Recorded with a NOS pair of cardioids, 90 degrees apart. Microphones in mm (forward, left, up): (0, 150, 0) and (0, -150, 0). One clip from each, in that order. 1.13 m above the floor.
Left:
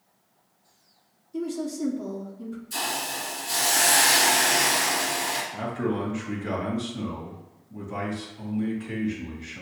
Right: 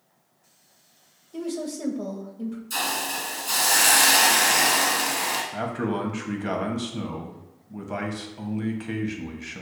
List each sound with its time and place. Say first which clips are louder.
1.3 s a woman speaking: even; 65° right, 1.4 m
2.7 s a hiss: right 2 dB; 65° right, 1.7 m
5.5 s a man speaking: right 1 dB; 55° right, 1.2 m